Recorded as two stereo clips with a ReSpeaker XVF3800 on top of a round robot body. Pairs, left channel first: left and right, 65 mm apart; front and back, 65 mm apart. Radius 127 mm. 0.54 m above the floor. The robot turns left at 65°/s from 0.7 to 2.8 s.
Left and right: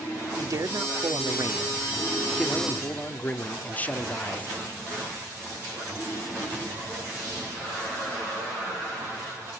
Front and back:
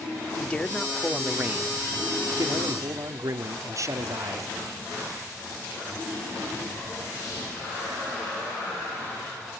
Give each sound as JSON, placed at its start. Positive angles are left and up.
{"t": 0.4, "sound": "a man speaking", "azimuth_deg": -70, "distance_m": 1.7}